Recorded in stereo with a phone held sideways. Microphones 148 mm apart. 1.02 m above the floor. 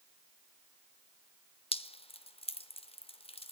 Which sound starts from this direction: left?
Dripping, at 1.7 s.